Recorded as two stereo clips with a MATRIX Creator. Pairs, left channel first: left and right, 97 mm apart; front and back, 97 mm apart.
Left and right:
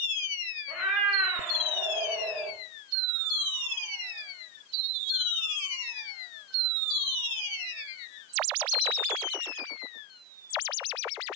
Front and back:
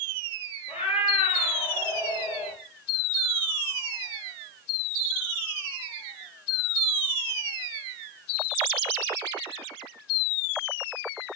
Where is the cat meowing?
10° right, 7.5 m.